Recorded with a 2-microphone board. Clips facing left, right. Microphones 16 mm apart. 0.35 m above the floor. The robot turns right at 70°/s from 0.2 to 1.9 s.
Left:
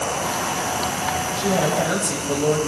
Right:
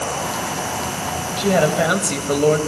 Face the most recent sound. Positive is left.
turn(degrees=-80)